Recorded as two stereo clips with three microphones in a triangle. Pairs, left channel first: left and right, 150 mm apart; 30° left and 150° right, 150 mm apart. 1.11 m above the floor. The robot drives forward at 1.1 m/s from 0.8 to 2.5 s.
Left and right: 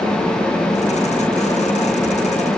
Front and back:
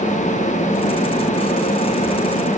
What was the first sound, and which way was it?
Only background noise.